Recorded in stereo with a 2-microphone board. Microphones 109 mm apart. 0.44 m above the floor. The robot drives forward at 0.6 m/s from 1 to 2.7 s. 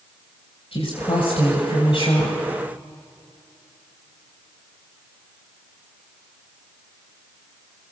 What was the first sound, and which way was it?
A woman speaking, 65° left (ahead or behind).